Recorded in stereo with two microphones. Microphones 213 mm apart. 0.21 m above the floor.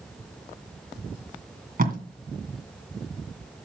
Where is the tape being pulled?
45° right (ahead or behind), 2.5 m.